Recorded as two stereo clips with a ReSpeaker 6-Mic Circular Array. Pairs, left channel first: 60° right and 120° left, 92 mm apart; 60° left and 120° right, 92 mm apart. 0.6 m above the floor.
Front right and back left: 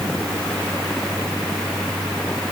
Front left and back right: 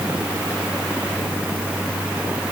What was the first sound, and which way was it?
Only background noise.